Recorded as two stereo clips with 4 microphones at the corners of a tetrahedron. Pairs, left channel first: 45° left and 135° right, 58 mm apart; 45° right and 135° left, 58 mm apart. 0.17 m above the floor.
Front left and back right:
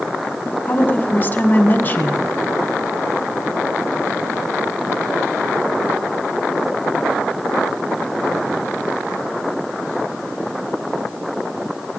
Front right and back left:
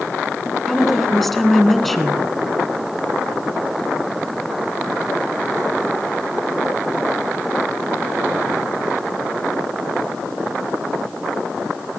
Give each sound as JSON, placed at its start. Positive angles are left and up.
{"t": 0.7, "sound": "a woman speaking", "azimuth_deg": 40, "distance_m": 1.5}